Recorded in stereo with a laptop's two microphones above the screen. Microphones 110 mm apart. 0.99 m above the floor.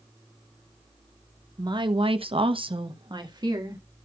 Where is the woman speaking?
40° right (ahead or behind), 1.0 m; by 3.8 s 35° right (ahead or behind), 2 m.